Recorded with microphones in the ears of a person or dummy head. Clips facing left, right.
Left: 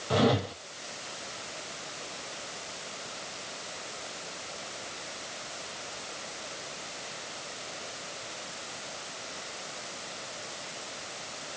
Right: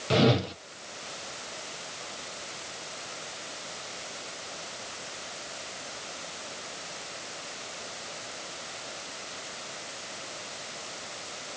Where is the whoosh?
25° right (ahead or behind), 0.7 m.